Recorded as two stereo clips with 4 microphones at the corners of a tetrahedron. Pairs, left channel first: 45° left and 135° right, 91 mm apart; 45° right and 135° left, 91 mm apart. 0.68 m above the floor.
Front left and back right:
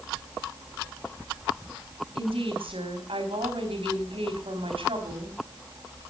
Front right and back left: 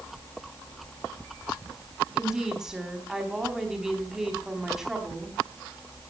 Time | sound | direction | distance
2.1 | a woman speaking | 140° right | 4.5 m